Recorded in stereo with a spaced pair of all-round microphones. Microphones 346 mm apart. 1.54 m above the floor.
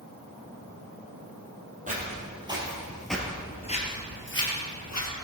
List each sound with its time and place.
1.9 s footsteps: 20° right (ahead or behind), 3 m; by 5.1 s 55° left (ahead or behind), 2.5 m